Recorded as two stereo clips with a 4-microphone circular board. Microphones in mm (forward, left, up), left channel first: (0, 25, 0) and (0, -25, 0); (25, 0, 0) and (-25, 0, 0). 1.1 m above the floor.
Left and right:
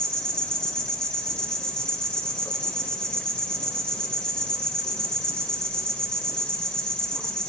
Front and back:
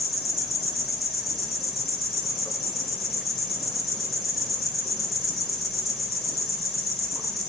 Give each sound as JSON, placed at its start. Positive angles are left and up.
{"t": 0.0, "sound": "an insect", "azimuth_deg": 90, "distance_m": 1.3}